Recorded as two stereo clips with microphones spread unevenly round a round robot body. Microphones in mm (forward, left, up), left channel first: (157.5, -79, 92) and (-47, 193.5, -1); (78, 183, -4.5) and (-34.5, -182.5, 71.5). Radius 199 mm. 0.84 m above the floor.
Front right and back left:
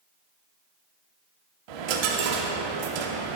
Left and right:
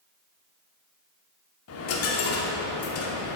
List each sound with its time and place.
1.7 s a dropped coin: 130° left, 0.8 m